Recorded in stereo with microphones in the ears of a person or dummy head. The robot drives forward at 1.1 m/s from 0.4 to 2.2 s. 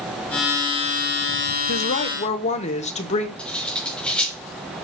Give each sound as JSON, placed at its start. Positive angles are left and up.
{"t": 1.7, "sound": "a woman speaking", "side_deg": 65, "distance_m": 0.9}
{"t": 3.4, "sound": "cutlery clinking", "side_deg": 10, "distance_m": 3.0}